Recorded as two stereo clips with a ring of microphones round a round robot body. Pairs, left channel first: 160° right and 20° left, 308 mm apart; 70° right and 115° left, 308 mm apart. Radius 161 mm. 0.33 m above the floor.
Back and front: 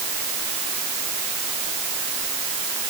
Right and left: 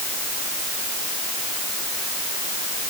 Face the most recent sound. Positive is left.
No sound to turn to.